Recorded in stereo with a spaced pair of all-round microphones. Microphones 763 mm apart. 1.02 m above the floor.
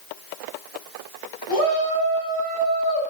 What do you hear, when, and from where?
1.5 s a shout: 75° right (ahead or behind), 8.5 m; by 3.0 s 70° right (ahead or behind), 8.5 m